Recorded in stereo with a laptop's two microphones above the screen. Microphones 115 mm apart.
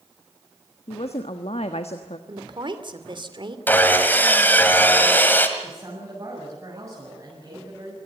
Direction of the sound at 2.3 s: 45° right (ahead or behind).